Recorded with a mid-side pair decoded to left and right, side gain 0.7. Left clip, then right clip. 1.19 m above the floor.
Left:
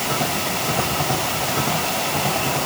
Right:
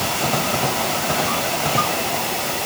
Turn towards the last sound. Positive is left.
No sound to turn to.